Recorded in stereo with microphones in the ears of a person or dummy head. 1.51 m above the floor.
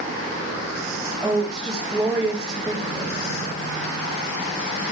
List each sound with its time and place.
1.2 s a woman speaking: 20° right (ahead or behind), 4 m